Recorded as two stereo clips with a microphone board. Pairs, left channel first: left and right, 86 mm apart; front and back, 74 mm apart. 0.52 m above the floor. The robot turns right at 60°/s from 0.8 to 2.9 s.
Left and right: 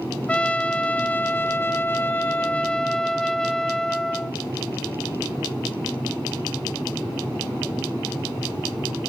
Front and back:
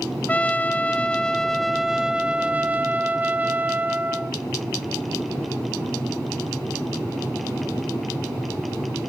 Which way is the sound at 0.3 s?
35° left.